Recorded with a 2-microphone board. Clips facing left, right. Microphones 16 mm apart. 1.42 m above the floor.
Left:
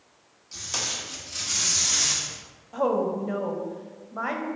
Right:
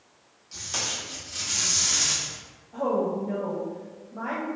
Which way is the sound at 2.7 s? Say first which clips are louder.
Left 1 dB; 70° left (ahead or behind).